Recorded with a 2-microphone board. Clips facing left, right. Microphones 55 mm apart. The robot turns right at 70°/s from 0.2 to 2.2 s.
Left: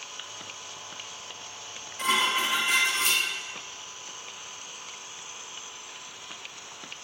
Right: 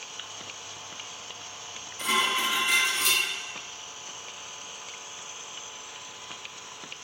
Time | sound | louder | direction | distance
2.0 | dishes clattering | left 1 dB | 55° left (ahead or behind) | 1.0 m